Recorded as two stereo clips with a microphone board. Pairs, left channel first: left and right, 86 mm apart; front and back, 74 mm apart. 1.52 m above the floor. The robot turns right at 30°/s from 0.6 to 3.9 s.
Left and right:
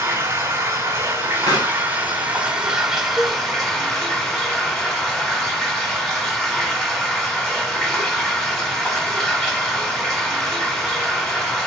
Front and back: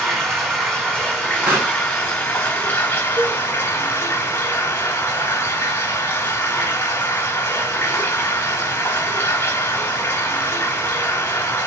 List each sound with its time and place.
0.0 s running water: 95° right, 1.5 m; by 11.7 s 5° left, 1.5 m
1.5 s a pop: 110° left, 2 m; by 1.8 s 120° left, 2 m
3.2 s a cowbell: 160° right, 1.8 m; by 3.4 s 155° right, 1.8 m